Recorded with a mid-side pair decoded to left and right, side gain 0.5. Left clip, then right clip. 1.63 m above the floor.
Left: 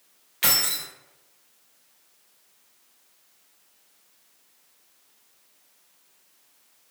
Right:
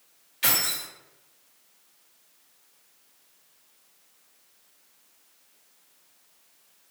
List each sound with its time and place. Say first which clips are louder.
0.4 s keys jangling: left 2 dB; 50° left, 1.6 m